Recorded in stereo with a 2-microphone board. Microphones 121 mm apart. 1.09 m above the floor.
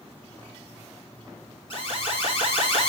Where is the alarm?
45° left (ahead or behind), 8.5 m.